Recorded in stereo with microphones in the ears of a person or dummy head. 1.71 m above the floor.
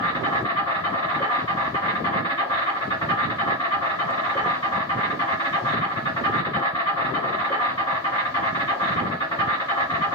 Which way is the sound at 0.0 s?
25° left (ahead or behind).